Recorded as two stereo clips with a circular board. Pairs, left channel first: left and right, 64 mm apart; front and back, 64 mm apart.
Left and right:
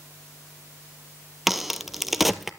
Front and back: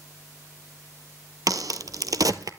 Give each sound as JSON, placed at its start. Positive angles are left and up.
{"t": 1.5, "sound": "a crack", "azimuth_deg": 180, "distance_m": 0.5}